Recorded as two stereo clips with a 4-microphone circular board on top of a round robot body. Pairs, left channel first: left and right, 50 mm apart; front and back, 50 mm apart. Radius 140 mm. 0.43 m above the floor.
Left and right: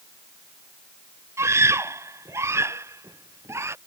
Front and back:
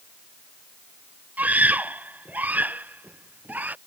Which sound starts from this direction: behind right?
A scream, at 1.4 s.